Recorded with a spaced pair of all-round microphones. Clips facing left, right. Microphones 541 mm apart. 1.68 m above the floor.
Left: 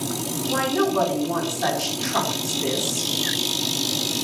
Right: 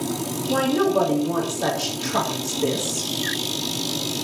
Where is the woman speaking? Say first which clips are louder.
Right 3 dB; 55° right (ahead or behind), 4.5 m.